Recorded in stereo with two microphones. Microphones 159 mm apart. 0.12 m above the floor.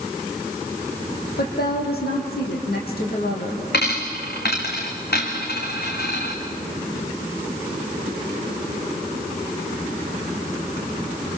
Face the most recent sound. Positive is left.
turn(degrees=80)